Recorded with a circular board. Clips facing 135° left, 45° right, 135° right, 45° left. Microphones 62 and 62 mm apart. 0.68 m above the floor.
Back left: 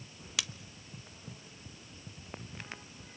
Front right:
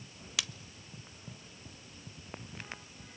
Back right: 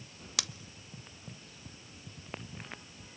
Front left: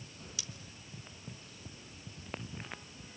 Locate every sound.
0.4 s scissors: 135° right, 0.5 m